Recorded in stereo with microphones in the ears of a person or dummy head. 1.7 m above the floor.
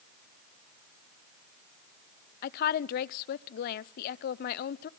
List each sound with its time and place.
2.4 s a woman speaking: 45° left (ahead or behind), 0.5 m